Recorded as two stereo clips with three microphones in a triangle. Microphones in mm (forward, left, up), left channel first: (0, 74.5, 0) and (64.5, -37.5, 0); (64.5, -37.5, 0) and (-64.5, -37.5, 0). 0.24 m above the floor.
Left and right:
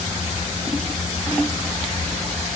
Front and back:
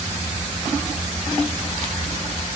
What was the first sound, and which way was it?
Only background noise.